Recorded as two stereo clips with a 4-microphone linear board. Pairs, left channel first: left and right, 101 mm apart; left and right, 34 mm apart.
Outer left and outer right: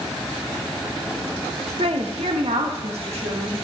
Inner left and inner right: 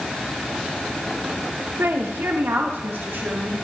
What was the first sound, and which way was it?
A woman speaking, 80° right.